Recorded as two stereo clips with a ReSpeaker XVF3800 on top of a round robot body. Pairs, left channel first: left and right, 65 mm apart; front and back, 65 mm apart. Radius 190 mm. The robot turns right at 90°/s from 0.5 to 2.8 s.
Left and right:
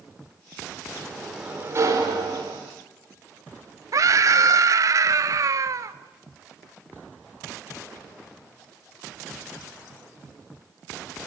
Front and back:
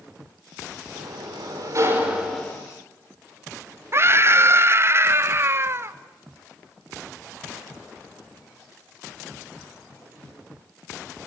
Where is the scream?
130° right, 0.9 m.